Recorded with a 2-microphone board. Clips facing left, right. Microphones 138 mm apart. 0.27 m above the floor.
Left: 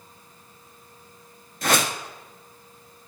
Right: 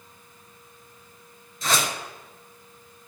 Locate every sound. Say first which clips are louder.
1.6 s a whoosh: left 3 dB; 60° left (ahead or behind), 1.1 m